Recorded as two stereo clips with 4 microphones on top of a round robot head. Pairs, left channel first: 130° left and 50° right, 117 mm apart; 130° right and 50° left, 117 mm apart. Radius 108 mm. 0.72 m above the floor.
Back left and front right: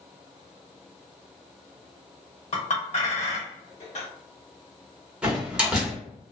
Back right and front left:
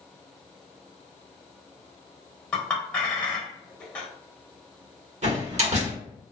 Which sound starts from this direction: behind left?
A clink, at 2.5 s.